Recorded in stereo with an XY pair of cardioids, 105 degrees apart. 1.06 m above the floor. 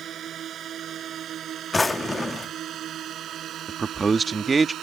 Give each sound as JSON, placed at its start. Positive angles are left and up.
{"t": 0.0, "sound": "a drone", "azimuth_deg": -60}
{"t": 1.7, "sound": "a drawer", "azimuth_deg": 20}
{"t": 3.7, "sound": "a man speaking", "azimuth_deg": -30}